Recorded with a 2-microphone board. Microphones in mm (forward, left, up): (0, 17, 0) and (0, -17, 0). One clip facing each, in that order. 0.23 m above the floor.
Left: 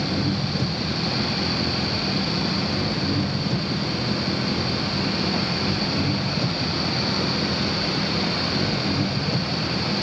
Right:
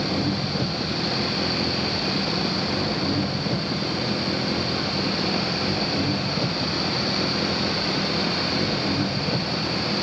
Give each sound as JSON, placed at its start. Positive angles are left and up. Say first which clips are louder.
{"t": 0.0, "sound": "an engine running", "louder": "even", "side_deg": -20}